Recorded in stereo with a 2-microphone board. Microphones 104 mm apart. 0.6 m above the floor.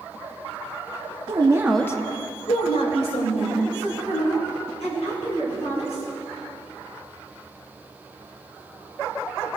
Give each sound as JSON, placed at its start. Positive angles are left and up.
{"t": 1.3, "sound": "a woman speaking", "side_deg": -50, "distance_m": 0.9}